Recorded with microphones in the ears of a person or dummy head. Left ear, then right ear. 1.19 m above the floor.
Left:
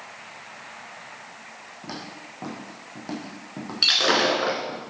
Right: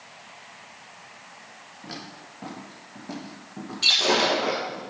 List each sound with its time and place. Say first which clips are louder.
1.8 s footsteps: left 2 dB; 40° left (ahead or behind), 3.5 m; by 4.8 s 60° left (ahead or behind), 2.5 m
3.8 s breaking glass: left 1 dB; 25° left (ahead or behind), 1.4 m